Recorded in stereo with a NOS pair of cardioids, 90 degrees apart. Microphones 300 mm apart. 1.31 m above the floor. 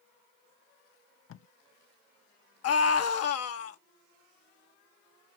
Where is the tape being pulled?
45° left, 0.6 m.